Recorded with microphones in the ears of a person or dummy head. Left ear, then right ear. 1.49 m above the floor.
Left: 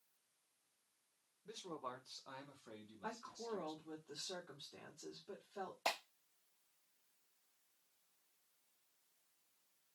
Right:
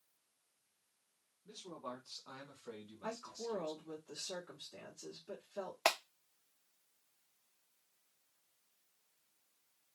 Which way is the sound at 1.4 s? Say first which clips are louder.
Right 1 dB; 40° left (ahead or behind).